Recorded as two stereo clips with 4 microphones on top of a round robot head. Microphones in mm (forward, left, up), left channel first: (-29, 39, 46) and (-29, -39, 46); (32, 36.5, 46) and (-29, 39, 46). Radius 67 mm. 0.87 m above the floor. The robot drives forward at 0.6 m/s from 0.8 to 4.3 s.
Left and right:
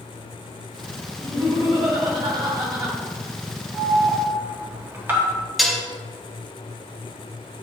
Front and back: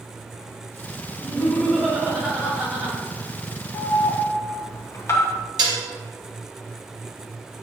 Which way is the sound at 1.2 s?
85° right.